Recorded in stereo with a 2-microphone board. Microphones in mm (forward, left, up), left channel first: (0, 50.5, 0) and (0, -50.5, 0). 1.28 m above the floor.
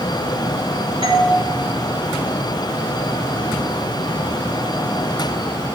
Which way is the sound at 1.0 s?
60° right (ahead or behind).